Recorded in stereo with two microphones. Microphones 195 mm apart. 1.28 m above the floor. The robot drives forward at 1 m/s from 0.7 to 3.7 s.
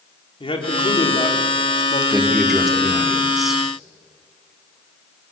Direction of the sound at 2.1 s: Centre (ahead or behind).